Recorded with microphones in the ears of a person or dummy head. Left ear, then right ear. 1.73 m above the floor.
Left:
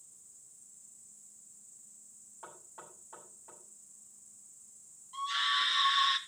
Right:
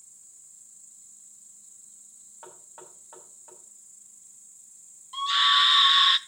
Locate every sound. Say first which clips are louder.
0.0 s an insect: right 5 dB; 35° right (ahead or behind), 1.9 m
2.4 s knocking: right 2 dB; 35° right (ahead or behind), 7 m
5.1 s a scream: right 10 dB; 40° right (ahead or behind), 0.9 m